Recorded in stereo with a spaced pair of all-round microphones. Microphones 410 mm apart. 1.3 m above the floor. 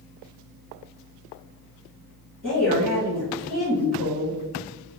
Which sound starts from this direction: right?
A woman speaking, at 2.4 s.